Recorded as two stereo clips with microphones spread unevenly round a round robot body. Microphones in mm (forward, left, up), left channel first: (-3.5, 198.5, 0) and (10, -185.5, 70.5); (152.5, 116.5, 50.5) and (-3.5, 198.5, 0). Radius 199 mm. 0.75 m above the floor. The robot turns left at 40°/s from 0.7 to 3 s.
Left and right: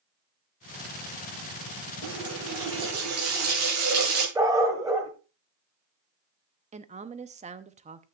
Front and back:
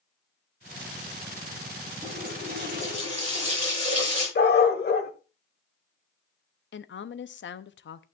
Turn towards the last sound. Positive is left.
turn(degrees=-10)